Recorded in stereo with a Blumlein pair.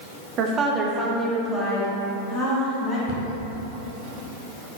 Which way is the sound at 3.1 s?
45° left.